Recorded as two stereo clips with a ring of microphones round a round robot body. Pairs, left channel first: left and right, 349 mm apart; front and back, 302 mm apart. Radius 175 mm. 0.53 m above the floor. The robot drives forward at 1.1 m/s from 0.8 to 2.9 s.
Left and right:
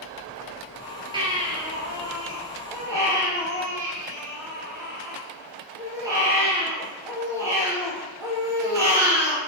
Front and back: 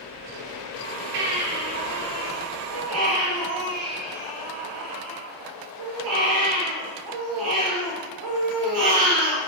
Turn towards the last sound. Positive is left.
turn(degrees=-170)